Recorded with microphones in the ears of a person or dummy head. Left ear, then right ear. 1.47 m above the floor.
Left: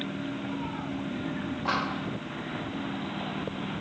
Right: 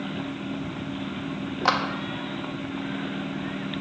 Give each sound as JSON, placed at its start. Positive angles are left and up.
{"t": 1.6, "sound": "a clap", "side_deg": -65, "distance_m": 1.1}